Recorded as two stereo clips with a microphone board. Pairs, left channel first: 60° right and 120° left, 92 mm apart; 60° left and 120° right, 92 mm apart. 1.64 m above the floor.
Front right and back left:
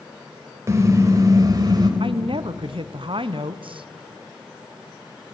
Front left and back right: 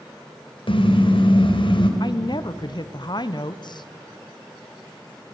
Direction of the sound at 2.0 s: 100° left.